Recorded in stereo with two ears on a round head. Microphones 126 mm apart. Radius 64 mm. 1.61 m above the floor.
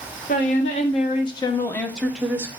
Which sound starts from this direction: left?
A woman speaking, at 0.3 s.